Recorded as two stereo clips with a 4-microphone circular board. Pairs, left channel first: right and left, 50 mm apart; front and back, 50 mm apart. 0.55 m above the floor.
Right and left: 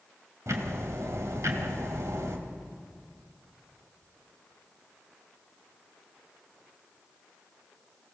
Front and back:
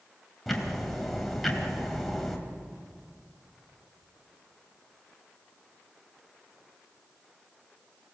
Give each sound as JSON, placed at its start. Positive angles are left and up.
{"t": 0.5, "sound": "ticking", "azimuth_deg": 85, "distance_m": 2.5}